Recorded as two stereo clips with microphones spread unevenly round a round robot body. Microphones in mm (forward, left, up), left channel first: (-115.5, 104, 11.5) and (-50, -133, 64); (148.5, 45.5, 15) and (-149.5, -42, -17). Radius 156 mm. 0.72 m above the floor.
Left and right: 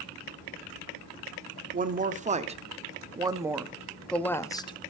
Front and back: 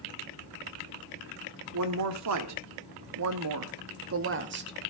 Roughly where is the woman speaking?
Behind right.